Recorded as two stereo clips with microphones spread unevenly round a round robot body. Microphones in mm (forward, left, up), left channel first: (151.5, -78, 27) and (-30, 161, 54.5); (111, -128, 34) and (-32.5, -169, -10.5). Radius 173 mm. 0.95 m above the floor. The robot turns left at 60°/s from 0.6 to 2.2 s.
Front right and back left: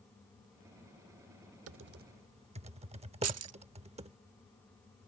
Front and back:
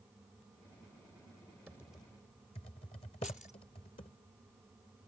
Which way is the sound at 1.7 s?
95° left.